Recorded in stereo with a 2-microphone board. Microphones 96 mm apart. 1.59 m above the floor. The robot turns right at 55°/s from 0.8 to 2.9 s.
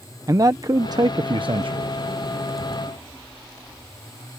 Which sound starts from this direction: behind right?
A man speaking, at 0.3 s.